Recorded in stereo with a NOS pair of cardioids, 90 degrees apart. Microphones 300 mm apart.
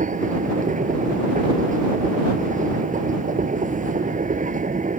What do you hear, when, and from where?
0.0 s a machine running: 25° right